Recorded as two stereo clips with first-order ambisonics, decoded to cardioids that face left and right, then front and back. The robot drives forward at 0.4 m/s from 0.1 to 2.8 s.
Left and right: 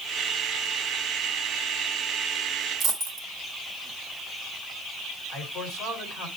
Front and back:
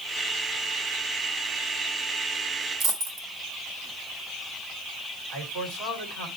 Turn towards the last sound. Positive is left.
turn(degrees=145)